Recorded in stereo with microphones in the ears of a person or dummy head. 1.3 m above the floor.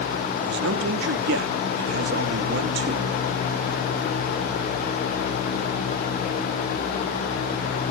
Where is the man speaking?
70° right (ahead or behind), 1.5 m.